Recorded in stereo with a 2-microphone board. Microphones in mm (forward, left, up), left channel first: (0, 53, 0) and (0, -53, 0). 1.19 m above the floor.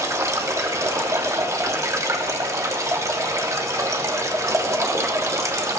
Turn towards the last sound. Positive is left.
turn(degrees=-30)  # may be behind; listen again after turning